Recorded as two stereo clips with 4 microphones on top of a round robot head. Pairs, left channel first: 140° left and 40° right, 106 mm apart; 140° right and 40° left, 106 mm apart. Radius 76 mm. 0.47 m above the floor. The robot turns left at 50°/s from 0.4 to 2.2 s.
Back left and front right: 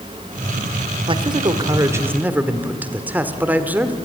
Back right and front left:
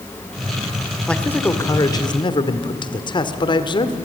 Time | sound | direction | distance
1.1 | a man speaking | 55° right | 1.5 m